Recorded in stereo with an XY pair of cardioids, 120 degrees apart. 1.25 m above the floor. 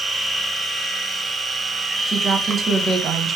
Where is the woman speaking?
35° right, 0.9 m.